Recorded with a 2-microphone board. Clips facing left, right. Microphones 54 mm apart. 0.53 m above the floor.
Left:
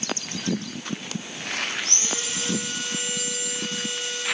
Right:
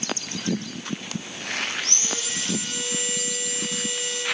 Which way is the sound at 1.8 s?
20° left (ahead or behind).